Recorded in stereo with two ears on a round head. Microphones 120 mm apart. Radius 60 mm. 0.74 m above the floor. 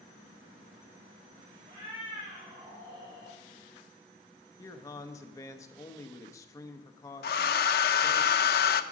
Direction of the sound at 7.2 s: 80° left.